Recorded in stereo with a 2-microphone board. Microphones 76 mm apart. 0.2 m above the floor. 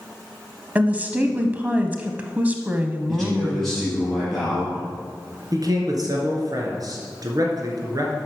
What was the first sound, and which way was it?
A woman speaking, 20° right (ahead or behind).